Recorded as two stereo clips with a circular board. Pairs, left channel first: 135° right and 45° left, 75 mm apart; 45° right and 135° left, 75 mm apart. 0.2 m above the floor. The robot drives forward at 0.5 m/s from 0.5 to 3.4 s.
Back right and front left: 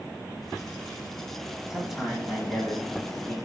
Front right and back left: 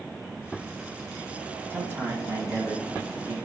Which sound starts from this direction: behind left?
A man speaking, at 1.7 s.